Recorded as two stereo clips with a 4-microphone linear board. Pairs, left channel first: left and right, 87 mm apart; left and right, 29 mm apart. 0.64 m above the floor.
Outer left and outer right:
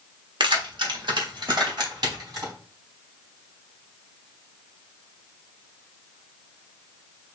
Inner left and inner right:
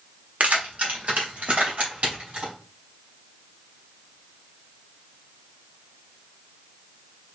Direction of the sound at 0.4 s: 65° right (ahead or behind).